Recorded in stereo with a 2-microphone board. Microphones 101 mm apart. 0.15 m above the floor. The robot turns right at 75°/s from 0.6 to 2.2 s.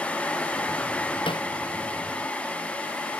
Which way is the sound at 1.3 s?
60° left (ahead or behind).